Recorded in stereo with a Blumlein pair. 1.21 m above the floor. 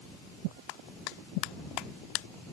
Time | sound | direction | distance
0.7 | a clap | 40° left | ?